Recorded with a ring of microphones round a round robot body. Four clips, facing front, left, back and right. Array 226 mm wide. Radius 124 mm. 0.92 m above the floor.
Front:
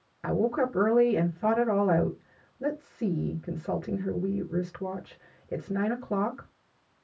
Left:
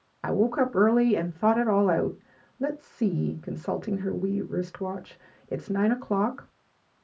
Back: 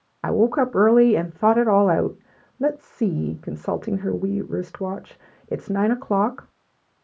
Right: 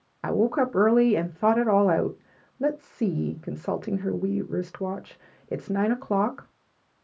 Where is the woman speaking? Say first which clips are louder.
Right 1 dB, back 7 dB; 165° right, 0.8 m.